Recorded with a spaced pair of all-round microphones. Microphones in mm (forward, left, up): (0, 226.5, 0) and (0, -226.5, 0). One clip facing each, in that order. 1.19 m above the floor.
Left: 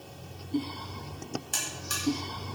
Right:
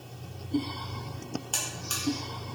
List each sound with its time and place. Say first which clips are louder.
1.5 s a buzzer: right 1 dB; 40° left (ahead or behind), 4.5 m